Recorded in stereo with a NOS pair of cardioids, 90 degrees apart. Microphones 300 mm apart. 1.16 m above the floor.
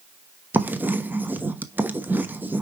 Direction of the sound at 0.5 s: 5° right.